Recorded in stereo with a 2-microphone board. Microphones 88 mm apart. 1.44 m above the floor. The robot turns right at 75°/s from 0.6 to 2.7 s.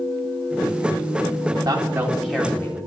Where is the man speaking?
45° right, 3.5 m; by 2.9 s 35° left, 3.5 m.